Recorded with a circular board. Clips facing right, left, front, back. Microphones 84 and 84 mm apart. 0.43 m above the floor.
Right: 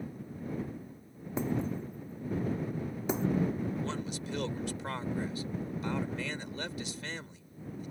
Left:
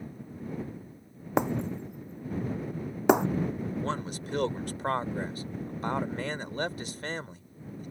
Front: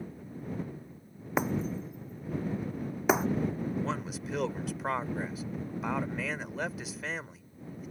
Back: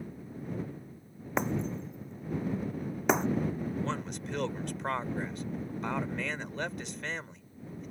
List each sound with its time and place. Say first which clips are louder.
1.4 s breaking glass: left 4 dB, front 1 dB; 85° left
3.8 s a man speaking: left 3 dB, even; 85° left